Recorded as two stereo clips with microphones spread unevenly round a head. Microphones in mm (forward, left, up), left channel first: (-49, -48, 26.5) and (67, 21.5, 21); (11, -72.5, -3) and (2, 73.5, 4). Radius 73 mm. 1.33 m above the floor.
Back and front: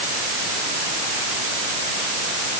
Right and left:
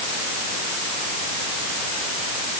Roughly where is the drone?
I don't hear a drone.